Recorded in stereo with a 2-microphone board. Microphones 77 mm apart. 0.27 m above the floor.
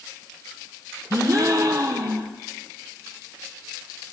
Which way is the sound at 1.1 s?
50° right (ahead or behind).